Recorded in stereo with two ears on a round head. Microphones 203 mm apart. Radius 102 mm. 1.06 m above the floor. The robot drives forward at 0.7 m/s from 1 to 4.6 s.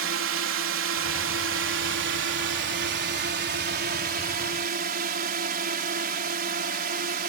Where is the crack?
I don't hear a crack.